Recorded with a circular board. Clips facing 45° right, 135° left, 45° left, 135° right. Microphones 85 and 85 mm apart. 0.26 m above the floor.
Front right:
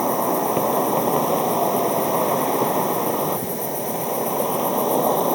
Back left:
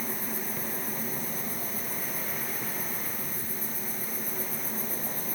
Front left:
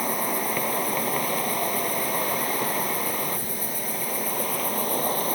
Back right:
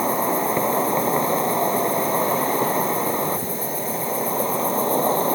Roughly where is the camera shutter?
No camera shutter in this recording.